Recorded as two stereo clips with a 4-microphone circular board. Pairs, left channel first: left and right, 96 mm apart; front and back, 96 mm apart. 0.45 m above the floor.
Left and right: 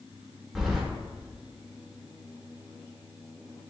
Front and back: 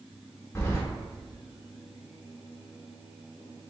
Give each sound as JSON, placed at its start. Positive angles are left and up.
{"t": 0.6, "sound": "keys jangling", "azimuth_deg": -10, "distance_m": 0.6}